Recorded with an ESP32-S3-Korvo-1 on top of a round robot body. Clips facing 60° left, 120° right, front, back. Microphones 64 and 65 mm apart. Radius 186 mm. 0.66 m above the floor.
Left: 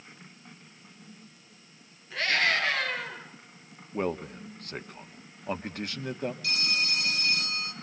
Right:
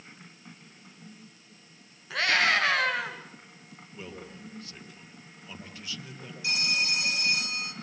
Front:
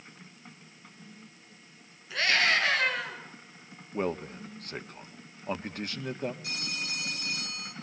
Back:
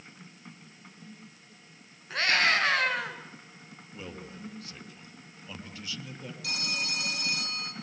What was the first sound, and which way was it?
A scream, 135° right.